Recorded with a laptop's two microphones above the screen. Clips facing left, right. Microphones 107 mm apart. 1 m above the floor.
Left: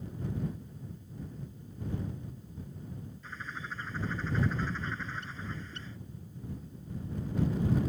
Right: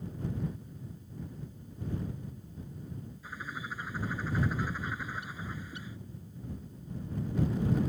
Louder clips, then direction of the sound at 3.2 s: Right 1 dB; 10° right (ahead or behind).